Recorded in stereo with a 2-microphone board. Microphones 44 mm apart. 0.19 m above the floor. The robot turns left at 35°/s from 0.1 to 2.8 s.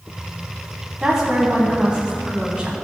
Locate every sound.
1.0 s a woman speaking: 15° right (ahead or behind), 1.0 m